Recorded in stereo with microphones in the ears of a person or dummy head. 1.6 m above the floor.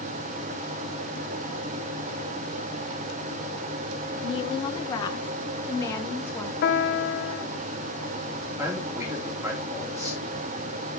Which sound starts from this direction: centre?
A man speaking, at 8.6 s.